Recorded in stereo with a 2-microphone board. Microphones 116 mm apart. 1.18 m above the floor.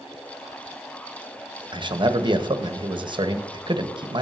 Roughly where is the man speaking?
Right.